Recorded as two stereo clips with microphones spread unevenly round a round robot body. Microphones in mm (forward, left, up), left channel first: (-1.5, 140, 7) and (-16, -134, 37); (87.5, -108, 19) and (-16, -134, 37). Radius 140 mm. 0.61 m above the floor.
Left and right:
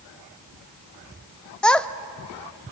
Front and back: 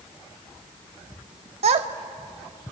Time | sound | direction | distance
1.6 | a child speaking | 170° left | 0.6 m